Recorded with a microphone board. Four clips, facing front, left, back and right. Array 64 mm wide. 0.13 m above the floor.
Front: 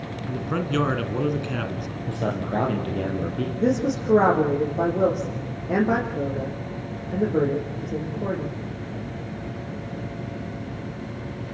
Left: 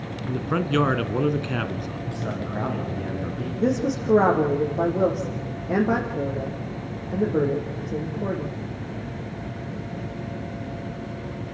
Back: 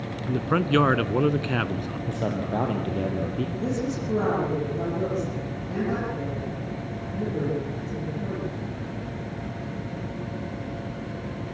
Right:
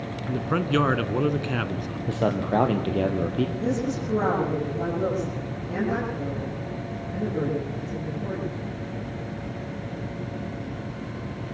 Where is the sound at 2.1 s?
90° right, 3.5 m.